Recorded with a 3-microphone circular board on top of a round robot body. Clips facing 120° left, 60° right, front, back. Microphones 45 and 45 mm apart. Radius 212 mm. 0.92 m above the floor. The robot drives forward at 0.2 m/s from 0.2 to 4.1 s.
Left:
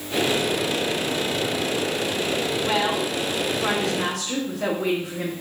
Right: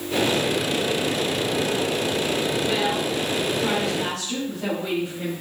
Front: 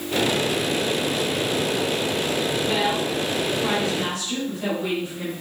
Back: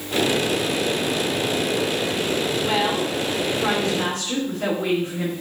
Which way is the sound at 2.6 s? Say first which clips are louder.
Even, back 1 dB; 145° left.